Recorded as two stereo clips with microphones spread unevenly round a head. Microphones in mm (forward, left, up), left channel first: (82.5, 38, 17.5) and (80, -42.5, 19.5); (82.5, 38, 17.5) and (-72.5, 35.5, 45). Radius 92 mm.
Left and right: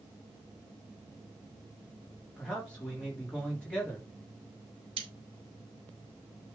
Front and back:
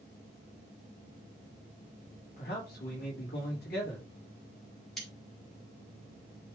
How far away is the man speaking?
About 3.5 m.